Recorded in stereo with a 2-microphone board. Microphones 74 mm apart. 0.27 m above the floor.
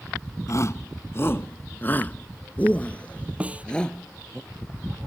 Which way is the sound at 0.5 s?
45° left (ahead or behind).